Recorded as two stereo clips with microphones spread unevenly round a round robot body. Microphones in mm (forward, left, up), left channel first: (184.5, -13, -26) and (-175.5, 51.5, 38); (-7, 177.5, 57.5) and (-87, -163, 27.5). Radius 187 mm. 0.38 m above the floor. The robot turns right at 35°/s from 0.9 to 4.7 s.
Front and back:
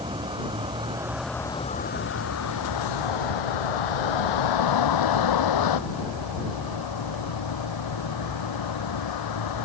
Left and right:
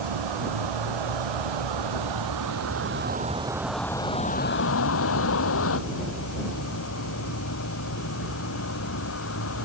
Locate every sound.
0.0 s a vehicle: 110° right; by 9.7 s 20° left